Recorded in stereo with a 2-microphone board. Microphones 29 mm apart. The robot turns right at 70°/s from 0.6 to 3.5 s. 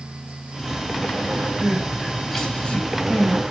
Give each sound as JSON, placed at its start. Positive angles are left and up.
{"t": 1.6, "sound": "crying", "side_deg": -45, "distance_m": 4.5}